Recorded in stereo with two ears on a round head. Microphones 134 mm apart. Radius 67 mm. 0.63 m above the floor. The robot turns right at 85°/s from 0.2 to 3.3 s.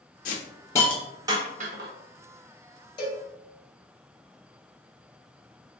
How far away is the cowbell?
About 1.3 m.